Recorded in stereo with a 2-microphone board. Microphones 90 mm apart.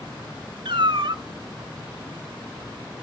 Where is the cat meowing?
60° right (ahead or behind), 1.2 m.